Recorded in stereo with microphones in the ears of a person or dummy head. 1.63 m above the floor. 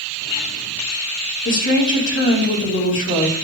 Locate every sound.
1.4 s a woman speaking: 65° left (ahead or behind), 4 m